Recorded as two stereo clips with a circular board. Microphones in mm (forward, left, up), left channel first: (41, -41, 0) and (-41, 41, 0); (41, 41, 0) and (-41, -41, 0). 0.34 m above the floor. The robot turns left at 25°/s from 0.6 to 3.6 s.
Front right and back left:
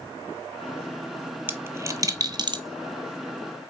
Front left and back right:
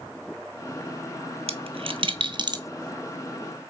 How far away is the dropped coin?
About 0.6 m.